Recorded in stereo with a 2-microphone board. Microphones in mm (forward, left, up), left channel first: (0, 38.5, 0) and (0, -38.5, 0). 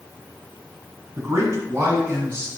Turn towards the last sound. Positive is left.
turn(degrees=-35)  # may be behind; listen again after turning